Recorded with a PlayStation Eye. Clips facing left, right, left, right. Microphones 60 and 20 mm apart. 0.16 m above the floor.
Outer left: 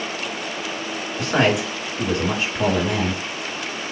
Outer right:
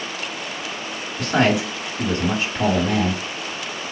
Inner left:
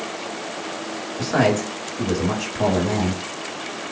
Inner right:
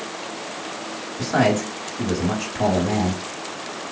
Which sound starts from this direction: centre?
A man speaking, at 1.2 s.